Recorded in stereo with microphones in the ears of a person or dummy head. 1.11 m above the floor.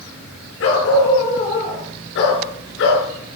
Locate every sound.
0.6 s a dog barking: 80° left, 8 m; by 3.4 s 60° left (ahead or behind), 6.5 m